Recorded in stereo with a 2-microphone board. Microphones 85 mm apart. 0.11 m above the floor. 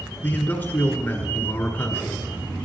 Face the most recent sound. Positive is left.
turn(degrees=20)  # may be behind; listen again after turning